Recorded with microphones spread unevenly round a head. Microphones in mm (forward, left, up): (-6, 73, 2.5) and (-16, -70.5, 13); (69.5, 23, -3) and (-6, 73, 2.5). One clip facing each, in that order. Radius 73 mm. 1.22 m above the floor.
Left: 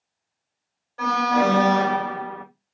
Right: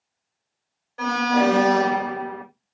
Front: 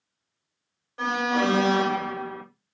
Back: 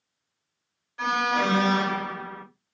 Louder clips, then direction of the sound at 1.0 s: Even, even; 20° right.